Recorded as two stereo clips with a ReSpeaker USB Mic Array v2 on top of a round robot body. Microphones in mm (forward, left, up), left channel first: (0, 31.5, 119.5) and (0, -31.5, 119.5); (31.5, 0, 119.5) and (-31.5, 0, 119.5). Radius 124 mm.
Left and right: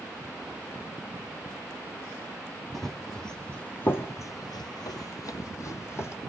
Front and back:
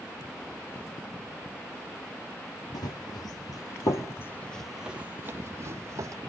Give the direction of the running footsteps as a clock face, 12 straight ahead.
12 o'clock.